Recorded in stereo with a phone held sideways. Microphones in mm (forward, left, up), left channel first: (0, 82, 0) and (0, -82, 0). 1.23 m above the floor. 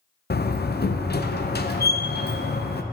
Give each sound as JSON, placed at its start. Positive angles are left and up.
{"t": 0.3, "sound": "a door slam", "side_deg": 80, "distance_m": 0.6}